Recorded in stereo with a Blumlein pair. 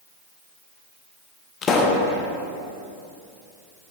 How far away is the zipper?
No zipper in this recording.